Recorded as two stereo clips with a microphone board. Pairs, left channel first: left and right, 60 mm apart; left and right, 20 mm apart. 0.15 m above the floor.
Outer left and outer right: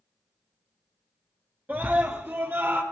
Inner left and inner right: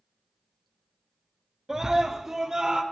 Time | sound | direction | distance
1.7 | a scream | 30° right (ahead or behind) | 2.5 m